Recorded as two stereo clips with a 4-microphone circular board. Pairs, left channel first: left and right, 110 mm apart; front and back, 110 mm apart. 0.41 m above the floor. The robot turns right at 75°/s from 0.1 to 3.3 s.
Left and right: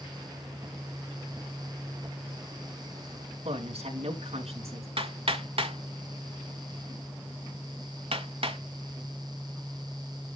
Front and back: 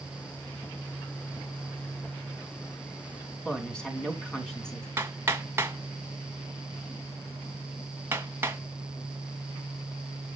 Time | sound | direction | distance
3.5 | a woman speaking | 80° right | 3.5 m
5.0 | hammering | 110° right | 2.0 m